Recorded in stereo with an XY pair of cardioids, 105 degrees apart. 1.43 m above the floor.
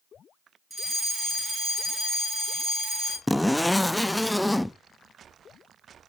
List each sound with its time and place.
0.7 s a fire alarm: 10° right, 4 m
3.3 s a zipper: 10° left, 0.5 m